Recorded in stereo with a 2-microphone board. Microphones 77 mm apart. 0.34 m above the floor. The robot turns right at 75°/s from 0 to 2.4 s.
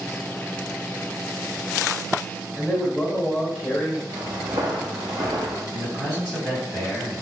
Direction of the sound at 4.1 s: 70° right (ahead or behind).